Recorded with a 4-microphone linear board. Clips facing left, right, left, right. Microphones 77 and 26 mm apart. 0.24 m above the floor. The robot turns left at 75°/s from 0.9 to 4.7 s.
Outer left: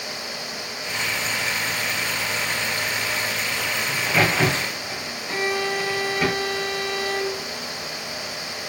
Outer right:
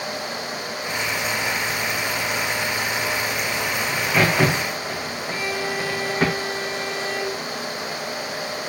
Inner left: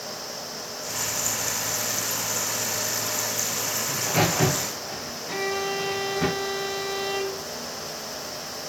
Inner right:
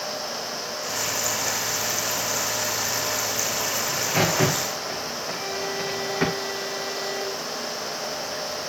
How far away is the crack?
About 3.5 m.